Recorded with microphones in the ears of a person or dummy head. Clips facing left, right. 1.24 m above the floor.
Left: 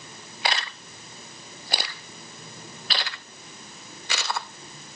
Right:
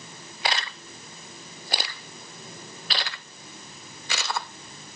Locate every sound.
Only background noise.